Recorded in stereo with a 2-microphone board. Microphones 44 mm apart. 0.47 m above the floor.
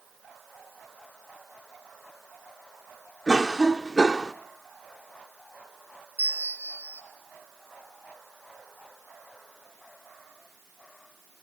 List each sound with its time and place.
3.3 s a cough: 15° right (ahead or behind), 0.7 m
6.2 s a bell: 50° right (ahead or behind), 1.5 m